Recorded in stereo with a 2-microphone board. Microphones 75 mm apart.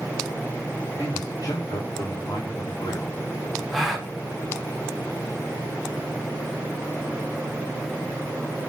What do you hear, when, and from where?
1.0 s a man speaking: 50° left (ahead or behind), 3 m; by 3.2 s 70° left (ahead or behind), 3.5 m
3.7 s a gasp: centre (ahead or behind), 1.3 m